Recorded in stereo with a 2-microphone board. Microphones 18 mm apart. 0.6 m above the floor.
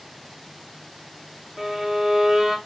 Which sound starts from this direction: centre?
A violin, at 1.6 s.